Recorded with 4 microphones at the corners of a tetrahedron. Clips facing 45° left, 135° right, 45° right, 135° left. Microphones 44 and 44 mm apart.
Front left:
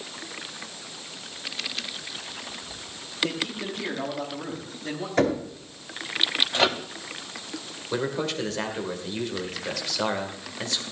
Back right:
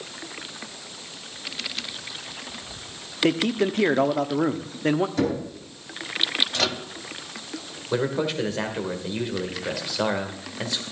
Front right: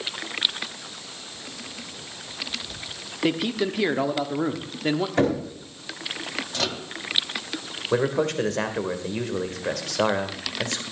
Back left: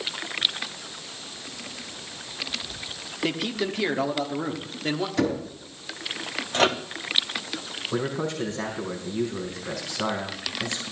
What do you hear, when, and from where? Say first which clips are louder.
3.2 s a man speaking: back right 9 dB, front right 3 dB; 120° right, 1.0 m
5.2 s knocking: front left 1 dB, front right 3 dB; 5° left, 4 m
6.5 s a microwave: front left 3 dB, back left 9 dB; 100° left, 0.7 m
7.9 s a man speaking: back right 3 dB, front right 6 dB; 55° right, 2 m